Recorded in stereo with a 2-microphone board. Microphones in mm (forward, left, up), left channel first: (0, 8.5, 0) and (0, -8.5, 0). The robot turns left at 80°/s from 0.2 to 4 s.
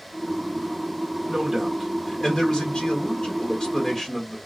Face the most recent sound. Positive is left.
turn(degrees=15)